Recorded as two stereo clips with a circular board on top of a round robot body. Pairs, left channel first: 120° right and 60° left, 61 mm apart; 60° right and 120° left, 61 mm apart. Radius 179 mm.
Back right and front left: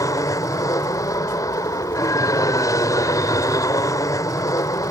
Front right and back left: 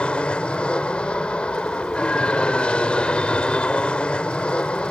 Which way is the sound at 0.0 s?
130° right.